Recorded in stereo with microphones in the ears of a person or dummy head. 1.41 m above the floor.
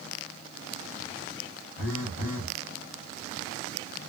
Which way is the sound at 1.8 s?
55° left (ahead or behind).